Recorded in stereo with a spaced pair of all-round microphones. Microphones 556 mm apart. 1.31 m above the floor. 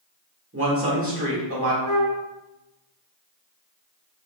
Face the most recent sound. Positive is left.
turn(degrees=5)  # may be behind; listen again after turning